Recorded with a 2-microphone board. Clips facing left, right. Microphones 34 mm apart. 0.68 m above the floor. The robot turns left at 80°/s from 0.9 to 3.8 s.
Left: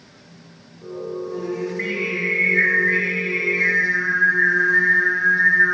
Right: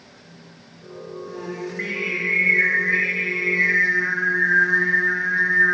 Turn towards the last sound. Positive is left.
turn(degrees=50)